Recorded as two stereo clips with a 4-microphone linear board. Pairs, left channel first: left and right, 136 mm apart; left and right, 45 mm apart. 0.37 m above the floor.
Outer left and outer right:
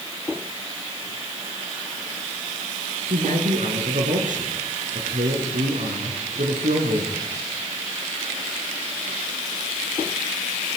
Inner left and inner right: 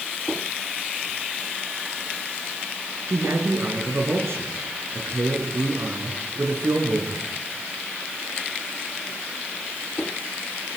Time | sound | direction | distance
3.1 | a man speaking | 70° right (ahead or behind) | 5.5 m